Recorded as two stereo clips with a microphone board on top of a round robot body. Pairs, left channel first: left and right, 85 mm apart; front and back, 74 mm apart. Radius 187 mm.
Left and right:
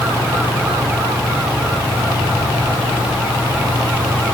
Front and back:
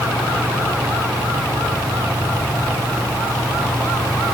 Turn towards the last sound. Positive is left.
No sound to turn to.